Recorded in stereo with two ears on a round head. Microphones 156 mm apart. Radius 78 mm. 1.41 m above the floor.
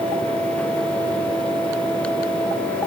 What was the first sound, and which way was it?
Only background noise.